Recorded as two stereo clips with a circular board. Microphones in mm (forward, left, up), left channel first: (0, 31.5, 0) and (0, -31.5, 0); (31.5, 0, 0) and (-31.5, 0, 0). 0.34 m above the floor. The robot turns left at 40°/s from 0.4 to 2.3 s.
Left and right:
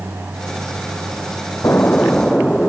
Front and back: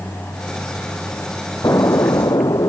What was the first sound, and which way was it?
An explosion, 40° left.